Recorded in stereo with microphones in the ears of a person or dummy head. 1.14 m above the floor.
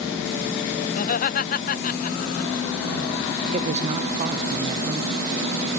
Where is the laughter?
45° left (ahead or behind).